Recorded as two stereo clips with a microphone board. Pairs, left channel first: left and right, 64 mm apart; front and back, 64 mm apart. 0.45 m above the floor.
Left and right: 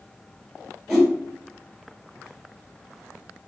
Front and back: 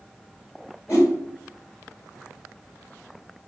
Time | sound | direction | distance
0.9 | a whoosh | 10° right | 1.8 m